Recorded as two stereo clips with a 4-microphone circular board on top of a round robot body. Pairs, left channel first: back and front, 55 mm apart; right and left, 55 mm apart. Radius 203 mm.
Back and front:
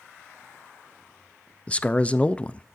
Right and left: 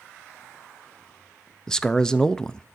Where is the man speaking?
150° right, 0.7 m.